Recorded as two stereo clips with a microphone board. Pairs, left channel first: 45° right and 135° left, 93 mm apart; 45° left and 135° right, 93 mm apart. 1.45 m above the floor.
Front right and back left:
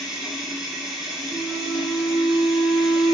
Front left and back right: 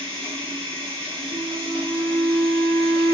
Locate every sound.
0.0 s running water: 140° right, 1.3 m
1.3 s a flute: 130° right, 1.0 m